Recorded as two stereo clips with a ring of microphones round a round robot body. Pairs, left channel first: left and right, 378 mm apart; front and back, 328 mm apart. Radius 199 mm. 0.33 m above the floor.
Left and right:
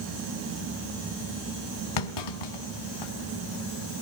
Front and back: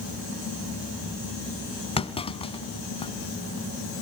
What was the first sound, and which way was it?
A clunk, 75° left.